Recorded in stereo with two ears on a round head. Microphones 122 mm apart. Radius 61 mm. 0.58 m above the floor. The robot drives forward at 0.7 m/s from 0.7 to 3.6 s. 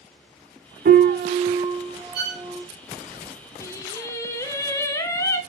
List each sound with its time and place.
0.8 s a piano: 80° right, 0.5 m; by 2.6 s 20° right (ahead or behind), 1.5 m
2.1 s a violin: 80° right, 3 m; by 2.4 s 85° right, 3 m
3.6 s singing: 20° left (ahead or behind), 1.0 m